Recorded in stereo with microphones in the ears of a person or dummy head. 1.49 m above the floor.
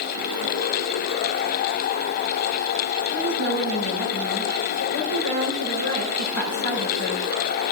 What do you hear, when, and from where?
3.1 s a woman speaking: 85° left, 5.5 m